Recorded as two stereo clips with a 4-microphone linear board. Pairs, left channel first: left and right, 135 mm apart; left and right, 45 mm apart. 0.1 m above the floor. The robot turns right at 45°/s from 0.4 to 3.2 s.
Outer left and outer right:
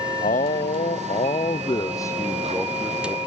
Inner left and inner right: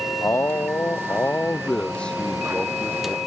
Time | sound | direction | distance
0.2 | a man speaking | 85° left | ?